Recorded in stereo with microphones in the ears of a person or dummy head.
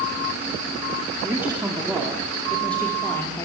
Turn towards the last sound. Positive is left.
turn(degrees=15)  # may be behind; listen again after turning